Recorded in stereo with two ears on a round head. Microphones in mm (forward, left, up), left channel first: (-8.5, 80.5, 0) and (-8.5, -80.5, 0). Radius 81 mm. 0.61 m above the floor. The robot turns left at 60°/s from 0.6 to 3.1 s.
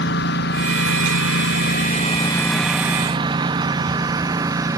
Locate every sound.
0.0 s a lawn mower: 70° left (ahead or behind); by 4.8 s 20° right (ahead or behind)